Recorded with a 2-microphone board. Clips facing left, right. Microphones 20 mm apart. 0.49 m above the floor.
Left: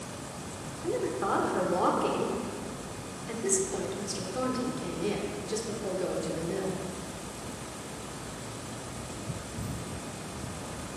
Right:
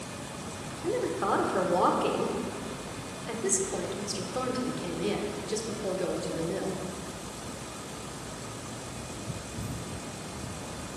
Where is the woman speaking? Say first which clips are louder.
Right 1 dB; 15° right (ahead or behind), 0.9 m.